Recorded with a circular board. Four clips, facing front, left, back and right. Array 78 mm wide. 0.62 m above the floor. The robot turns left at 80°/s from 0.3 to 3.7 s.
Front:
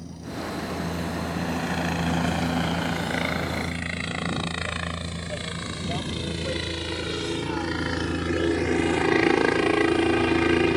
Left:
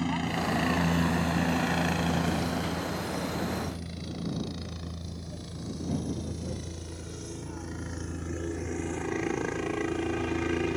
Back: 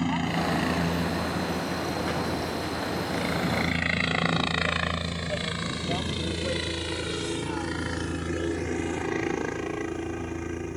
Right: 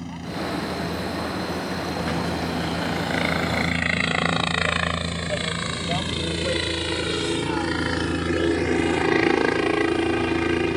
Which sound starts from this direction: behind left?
A helicopter, at 0.0 s.